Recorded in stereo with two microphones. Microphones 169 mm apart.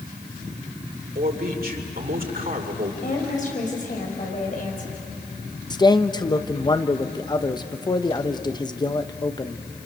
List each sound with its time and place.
1.1 s a man speaking: 60° right (ahead or behind), 2.5 m
3.0 s a woman speaking: 50° left (ahead or behind), 5.5 m
5.7 s a man speaking: 25° left (ahead or behind), 0.9 m